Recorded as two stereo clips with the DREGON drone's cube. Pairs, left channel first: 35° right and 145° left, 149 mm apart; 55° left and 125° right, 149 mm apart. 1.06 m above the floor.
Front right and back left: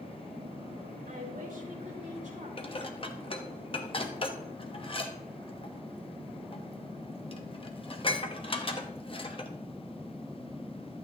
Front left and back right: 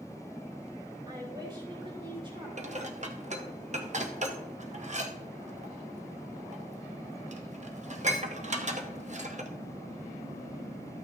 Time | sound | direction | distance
1.1 | a woman speaking | 175° left | 3 m
2.6 | dishes clattering | 85° right | 0.9 m